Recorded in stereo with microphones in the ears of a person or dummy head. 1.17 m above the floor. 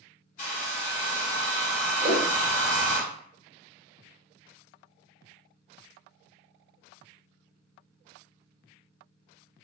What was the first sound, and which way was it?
A hair dryer, 50° left (ahead or behind).